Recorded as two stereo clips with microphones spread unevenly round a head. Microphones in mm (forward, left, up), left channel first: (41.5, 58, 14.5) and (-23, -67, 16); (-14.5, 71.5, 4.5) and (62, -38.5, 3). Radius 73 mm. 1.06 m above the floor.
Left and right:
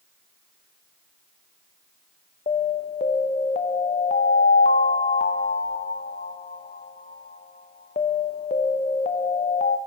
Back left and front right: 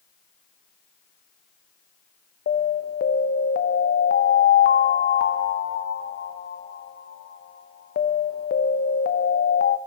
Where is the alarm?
110° left, 0.6 m.